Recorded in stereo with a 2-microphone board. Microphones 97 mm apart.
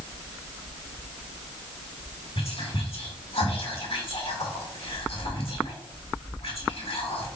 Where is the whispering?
75° left (ahead or behind), 2.0 m.